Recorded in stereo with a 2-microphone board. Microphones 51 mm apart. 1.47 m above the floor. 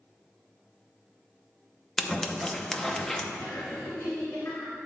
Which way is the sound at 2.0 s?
5° left (ahead or behind).